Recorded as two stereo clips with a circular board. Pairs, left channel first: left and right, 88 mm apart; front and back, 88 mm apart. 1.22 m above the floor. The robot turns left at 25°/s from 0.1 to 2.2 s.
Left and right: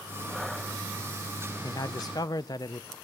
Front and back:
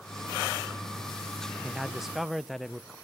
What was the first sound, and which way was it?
A man speaking, 105° left.